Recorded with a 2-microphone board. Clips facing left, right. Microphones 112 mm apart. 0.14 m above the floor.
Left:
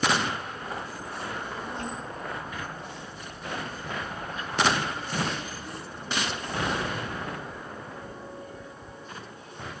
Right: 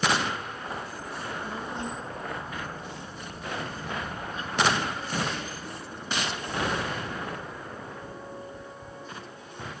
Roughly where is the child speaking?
Right.